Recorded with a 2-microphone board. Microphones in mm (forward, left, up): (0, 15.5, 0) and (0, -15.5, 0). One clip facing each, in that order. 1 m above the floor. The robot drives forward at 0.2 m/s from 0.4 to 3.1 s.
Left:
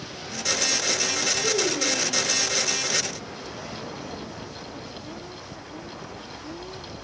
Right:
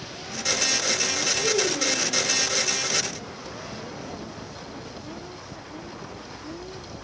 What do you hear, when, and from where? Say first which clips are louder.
1.4 s a child speaking: right 2 dB; 30° right (ahead or behind), 3 m